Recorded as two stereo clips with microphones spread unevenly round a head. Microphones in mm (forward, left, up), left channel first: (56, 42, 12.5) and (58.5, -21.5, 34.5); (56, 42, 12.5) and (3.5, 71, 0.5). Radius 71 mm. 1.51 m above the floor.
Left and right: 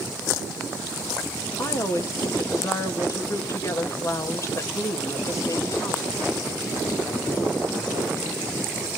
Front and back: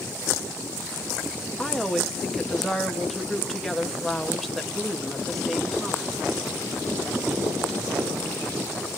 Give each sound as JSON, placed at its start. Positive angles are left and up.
{"t": 1.6, "sound": "a woman speaking", "azimuth_deg": 55, "distance_m": 3.0}